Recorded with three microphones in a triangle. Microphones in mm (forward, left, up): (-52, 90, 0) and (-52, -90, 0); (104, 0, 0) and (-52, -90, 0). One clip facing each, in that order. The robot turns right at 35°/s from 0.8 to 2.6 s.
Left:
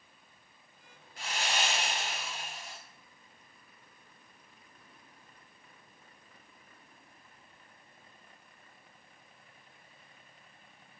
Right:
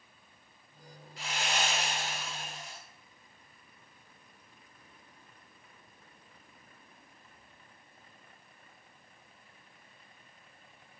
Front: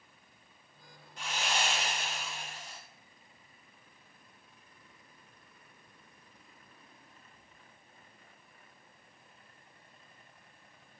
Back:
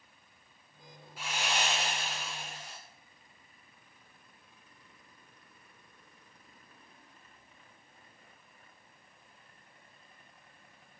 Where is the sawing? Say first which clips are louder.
Even, even; 125° left, 1.8 m; by 2.8 s straight behind, 1.8 m.